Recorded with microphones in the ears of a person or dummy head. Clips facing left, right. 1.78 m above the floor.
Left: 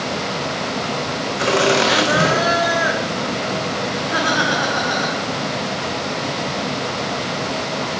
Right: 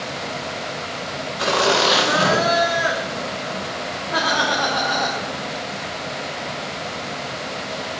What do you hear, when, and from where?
1.4 s laughter: 30° left (ahead or behind), 1.6 m